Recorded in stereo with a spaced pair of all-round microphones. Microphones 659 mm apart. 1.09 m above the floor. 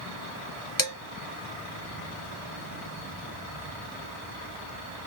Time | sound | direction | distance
0.8 | dishes clattering | 30° left (ahead or behind) | 1.1 m